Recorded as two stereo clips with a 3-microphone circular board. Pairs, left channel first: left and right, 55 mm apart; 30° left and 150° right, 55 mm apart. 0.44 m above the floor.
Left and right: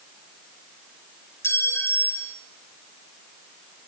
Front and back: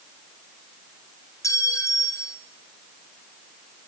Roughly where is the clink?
Ahead left.